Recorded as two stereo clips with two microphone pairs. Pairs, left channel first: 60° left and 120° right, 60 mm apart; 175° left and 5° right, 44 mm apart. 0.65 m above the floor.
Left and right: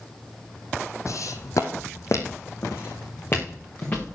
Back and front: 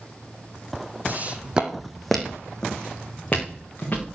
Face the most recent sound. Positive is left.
turn(degrees=120)